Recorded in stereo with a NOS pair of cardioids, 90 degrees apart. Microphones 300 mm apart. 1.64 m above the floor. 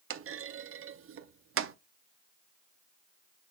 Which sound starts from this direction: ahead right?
A clunk, at 0.1 s.